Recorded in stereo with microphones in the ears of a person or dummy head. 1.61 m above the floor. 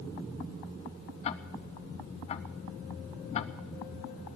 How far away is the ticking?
About 0.7 m.